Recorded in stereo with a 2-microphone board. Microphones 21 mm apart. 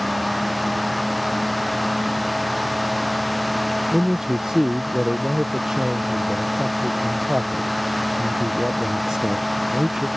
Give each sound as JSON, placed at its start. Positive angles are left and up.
{"t": 3.9, "sound": "a man speaking", "side_deg": -35}